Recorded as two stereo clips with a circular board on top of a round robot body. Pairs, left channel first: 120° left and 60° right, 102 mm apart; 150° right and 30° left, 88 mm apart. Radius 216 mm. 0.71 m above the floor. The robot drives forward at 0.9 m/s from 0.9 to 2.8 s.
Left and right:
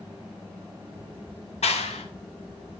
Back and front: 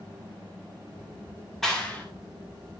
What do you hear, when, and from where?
1.6 s a clap: 120° left, 1.5 m; by 2.1 s 135° left, 1.8 m